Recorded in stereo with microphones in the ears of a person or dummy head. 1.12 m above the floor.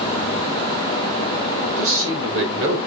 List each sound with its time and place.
1.6 s a man speaking: 80° right, 4.5 m; by 2.8 s 70° right (ahead or behind), 4 m